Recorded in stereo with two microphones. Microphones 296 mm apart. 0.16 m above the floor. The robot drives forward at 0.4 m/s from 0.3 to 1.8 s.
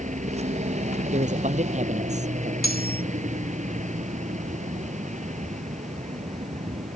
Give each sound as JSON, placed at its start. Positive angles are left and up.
{"t": 0.0, "sound": "a helicopter", "side_deg": -25}
{"t": 1.1, "sound": "a man speaking", "side_deg": -25}
{"t": 2.6, "sound": "cutlery clinking", "side_deg": 30}